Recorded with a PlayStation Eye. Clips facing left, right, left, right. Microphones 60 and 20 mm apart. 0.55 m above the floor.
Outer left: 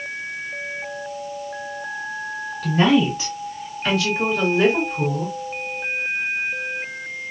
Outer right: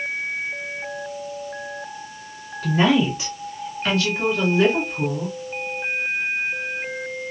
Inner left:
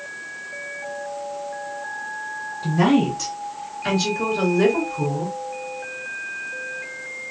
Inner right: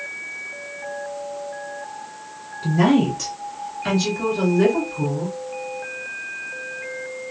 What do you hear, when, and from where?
2.6 s a woman speaking: 15° right (ahead or behind), 1.9 m; by 5.4 s 15° left (ahead or behind), 1.1 m